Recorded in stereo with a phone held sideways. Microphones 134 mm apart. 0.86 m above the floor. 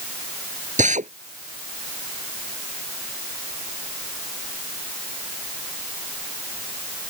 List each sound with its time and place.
0.8 s a drill: 80° right